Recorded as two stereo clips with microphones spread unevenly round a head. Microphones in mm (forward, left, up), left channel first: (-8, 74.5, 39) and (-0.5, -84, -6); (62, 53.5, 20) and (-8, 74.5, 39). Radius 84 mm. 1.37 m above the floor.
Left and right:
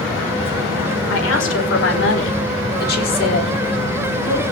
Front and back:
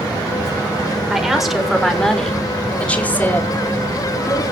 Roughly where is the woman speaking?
Left.